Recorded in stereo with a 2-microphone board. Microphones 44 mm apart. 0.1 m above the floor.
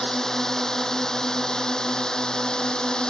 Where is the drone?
10° left (ahead or behind); by 3.1 s 20° left (ahead or behind).